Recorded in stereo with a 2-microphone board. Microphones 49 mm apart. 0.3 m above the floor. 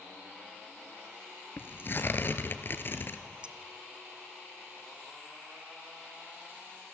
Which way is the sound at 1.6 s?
45° left (ahead or behind).